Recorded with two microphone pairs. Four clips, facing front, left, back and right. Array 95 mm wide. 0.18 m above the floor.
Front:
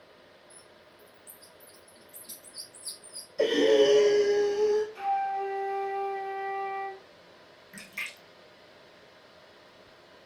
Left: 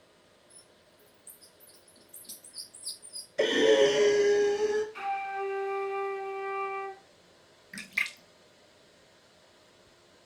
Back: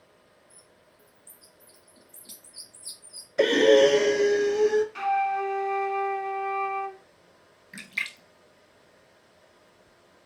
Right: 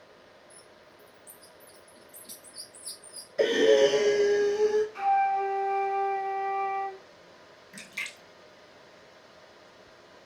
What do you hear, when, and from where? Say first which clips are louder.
0.5 s a bird: right 7 dB, front 4 dB; 110° right, 3 m
3.4 s breathing: right 2 dB, back 4 dB; 175° right, 0.9 m
5.0 s a flute: right 9 dB, back 3 dB; 175° right, 0.8 m
7.7 s a splash: left 5 dB, back 6 dB; 110° left, 0.6 m